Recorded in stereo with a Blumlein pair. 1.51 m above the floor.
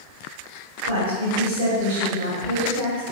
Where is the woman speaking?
65° right, 1.5 m.